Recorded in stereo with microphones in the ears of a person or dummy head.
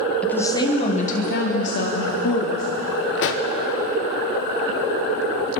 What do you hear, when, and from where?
0.2 s a woman speaking: 5° left (ahead or behind), 1.5 m; by 2.6 s 70° left (ahead or behind), 3 m
3.2 s a pop: 60° left (ahead or behind), 0.7 m